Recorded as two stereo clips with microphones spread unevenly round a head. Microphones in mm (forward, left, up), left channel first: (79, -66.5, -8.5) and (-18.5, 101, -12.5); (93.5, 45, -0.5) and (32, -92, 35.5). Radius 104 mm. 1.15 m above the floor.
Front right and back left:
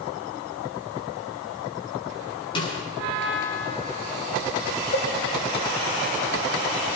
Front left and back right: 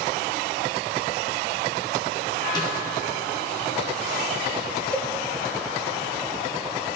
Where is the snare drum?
5° left, 8 m.